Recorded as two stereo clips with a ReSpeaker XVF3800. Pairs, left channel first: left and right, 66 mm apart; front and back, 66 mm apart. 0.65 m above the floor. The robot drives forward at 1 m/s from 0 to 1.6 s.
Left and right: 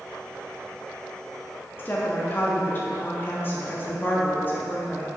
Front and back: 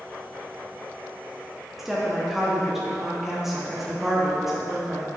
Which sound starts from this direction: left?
A woman speaking, at 1.8 s.